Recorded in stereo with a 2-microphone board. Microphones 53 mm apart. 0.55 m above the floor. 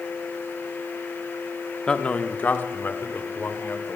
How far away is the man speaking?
About 0.8 m.